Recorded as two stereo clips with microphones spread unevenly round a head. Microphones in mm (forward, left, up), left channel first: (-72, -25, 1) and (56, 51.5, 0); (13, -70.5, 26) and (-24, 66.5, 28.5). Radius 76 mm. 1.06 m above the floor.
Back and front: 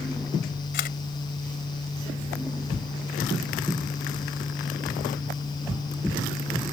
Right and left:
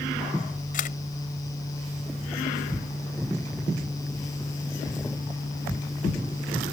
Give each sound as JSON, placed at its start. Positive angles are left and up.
{"t": 0.7, "sound": "a camera shutter", "azimuth_deg": -110}